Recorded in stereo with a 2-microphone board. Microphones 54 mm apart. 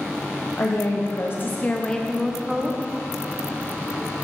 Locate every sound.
0.6 s a woman speaking: 60° left (ahead or behind), 0.9 m; by 2.8 s 10° right (ahead or behind), 1.1 m